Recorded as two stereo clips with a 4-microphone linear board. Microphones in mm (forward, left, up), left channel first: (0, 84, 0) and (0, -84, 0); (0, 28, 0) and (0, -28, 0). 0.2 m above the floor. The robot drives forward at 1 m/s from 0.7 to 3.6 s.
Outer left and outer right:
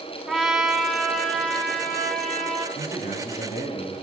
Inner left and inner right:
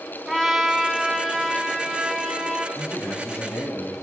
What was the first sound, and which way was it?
A trumpet, centre (ahead or behind).